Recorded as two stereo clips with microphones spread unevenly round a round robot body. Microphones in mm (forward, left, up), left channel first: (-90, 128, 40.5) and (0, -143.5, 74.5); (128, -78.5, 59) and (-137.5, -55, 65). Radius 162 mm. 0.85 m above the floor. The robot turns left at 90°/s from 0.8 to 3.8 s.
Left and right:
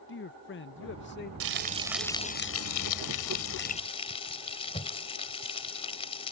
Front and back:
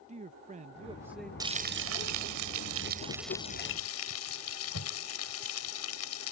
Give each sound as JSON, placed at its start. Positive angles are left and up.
{"t": 0.1, "sound": "a man speaking", "azimuth_deg": 120}
{"t": 1.4, "sound": "frying", "azimuth_deg": -110}